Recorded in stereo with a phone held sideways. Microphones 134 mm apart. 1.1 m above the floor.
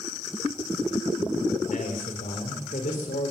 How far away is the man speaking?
About 4.5 m.